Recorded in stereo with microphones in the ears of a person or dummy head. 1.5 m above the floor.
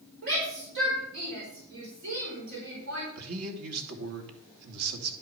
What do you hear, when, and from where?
0.2 s a shout: 70° right (ahead or behind), 4.5 m
3.1 s a man speaking: 85° right, 2.5 m